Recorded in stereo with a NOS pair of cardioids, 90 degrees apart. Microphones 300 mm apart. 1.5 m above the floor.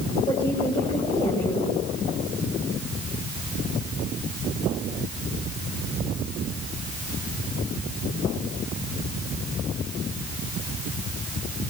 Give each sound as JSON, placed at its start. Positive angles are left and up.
{"t": 0.3, "sound": "a woman speaking", "azimuth_deg": 15, "distance_m": 8.0}